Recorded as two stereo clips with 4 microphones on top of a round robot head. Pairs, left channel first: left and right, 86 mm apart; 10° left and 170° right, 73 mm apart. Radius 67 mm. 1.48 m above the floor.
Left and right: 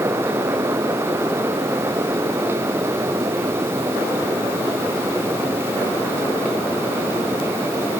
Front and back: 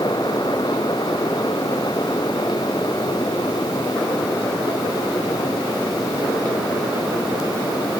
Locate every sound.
Only background noise.